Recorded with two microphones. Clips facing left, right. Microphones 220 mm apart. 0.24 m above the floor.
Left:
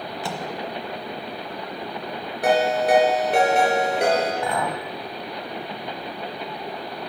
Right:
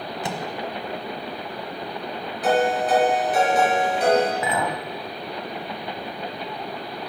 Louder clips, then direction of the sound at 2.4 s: Left 1 dB; 75° left (ahead or behind).